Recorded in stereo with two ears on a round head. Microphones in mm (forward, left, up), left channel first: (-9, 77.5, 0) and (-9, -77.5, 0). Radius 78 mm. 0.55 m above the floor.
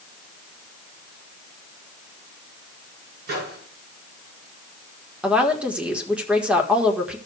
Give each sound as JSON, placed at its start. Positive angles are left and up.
{"t": 3.3, "sound": "a microwave", "side_deg": -65, "distance_m": 6.0}
{"t": 5.2, "sound": "a woman speaking", "side_deg": -5, "distance_m": 1.6}